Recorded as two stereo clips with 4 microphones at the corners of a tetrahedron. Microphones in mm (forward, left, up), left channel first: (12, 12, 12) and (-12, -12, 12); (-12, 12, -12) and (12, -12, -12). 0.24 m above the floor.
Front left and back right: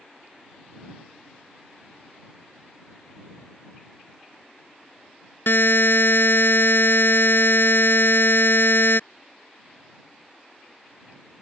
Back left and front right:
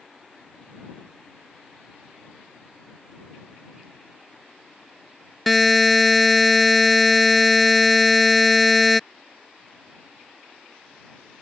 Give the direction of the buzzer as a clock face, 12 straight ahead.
10 o'clock.